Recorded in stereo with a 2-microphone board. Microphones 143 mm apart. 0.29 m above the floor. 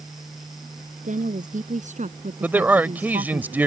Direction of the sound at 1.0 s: 65° right (ahead or behind).